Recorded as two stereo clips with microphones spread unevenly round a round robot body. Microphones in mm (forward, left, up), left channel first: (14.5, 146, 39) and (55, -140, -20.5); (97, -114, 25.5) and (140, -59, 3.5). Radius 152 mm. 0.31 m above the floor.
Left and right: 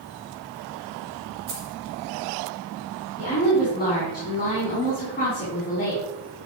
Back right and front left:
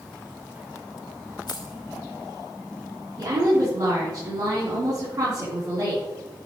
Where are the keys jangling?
110° right, 3.5 m.